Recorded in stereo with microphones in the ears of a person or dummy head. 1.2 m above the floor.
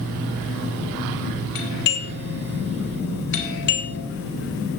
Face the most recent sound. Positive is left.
turn(degrees=60)  # may be behind; listen again after turning